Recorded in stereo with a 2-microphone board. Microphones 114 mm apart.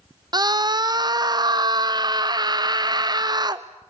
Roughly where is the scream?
Right.